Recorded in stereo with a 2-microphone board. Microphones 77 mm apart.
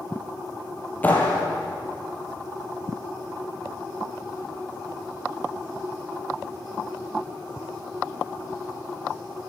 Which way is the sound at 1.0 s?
20° left (ahead or behind).